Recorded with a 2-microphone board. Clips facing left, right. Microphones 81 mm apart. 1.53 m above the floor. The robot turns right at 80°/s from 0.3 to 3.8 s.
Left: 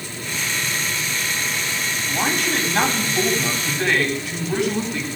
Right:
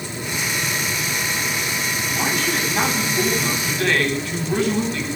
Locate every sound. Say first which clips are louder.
2.1 s a man speaking: left 1 dB; 25° left, 10 m; by 5.1 s 160° left, 10 m